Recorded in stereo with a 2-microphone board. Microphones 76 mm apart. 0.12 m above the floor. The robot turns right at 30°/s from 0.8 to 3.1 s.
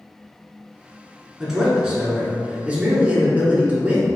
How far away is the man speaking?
About 1.1 m.